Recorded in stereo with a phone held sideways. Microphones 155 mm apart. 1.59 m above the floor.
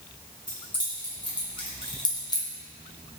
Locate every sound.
0.5 s keys jangling: 30° left (ahead or behind), 1.5 m; by 2.5 s 20° left (ahead or behind), 0.6 m